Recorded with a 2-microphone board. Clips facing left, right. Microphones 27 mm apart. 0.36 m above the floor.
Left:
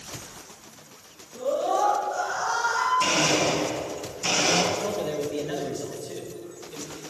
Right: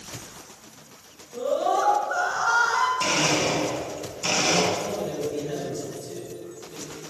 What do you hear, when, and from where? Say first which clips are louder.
1.3 s a scream: right 1 dB; 60° right (ahead or behind), 4.5 m; by 2.9 s 50° right (ahead or behind), 2.5 m
3.0 s a blender: left 1 dB; 10° right (ahead or behind), 3 m
4.7 s a man speaking: left 1 dB; 30° left (ahead or behind), 1.4 m